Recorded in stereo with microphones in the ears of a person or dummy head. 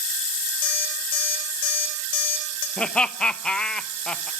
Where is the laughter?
5° left (ahead or behind), 0.9 m.